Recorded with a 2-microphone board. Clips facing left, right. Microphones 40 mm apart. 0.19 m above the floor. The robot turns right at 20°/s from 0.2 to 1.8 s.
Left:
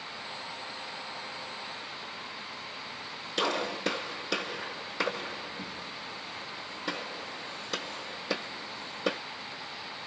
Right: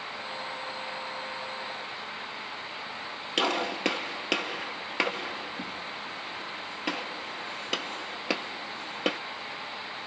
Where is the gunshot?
75° right (ahead or behind), 1.4 m.